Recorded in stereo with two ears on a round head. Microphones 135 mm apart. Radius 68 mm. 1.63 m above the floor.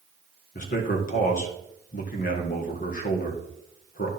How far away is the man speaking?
About 1.8 m.